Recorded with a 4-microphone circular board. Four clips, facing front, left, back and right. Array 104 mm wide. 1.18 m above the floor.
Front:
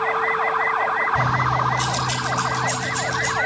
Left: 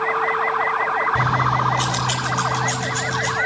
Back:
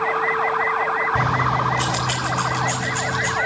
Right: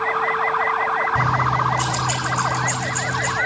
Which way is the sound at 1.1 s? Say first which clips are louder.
Even, even; 160° left.